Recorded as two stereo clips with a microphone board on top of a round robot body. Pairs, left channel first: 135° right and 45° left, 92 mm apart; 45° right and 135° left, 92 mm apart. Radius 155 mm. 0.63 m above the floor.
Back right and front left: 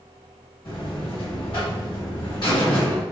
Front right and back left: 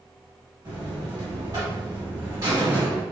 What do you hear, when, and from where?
0.7 s a buzzer: 170° right, 1.4 m